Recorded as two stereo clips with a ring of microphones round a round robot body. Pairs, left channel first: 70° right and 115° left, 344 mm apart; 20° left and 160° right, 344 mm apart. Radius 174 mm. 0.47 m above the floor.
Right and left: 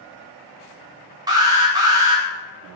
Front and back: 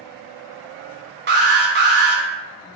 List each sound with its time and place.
1.3 s an alarm: straight behind, 0.6 m